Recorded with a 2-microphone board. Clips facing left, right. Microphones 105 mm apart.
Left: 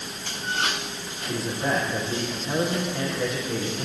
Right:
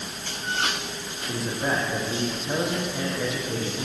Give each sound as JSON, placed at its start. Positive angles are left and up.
{"t": 1.3, "sound": "a man speaking", "side_deg": -10, "distance_m": 7.5}